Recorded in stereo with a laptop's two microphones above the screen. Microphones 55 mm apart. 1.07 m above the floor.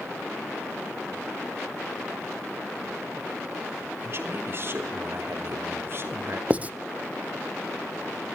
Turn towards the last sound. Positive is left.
turn(degrees=-25)  # may be behind; listen again after turning